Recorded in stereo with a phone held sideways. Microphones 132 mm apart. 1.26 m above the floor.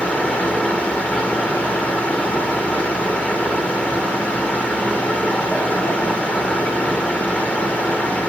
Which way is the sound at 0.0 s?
10° left (ahead or behind).